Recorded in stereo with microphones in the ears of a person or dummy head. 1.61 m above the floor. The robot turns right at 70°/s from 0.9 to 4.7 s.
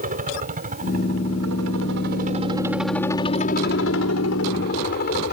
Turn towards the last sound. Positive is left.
turn(degrees=125)